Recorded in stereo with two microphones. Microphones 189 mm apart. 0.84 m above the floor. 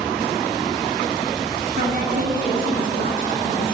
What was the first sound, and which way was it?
A woman speaking, 50° right (ahead or behind).